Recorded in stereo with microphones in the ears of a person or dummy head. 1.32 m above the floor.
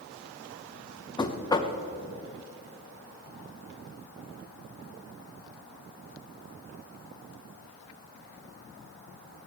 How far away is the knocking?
About 0.9 m.